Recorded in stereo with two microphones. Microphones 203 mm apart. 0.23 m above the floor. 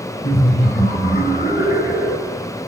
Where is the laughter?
50° left (ahead or behind), 2.5 m.